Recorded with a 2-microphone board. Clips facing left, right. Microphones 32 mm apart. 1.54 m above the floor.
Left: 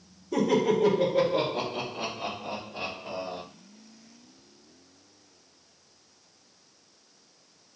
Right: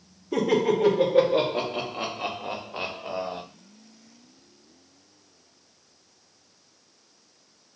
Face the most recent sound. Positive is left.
turn(degrees=-80)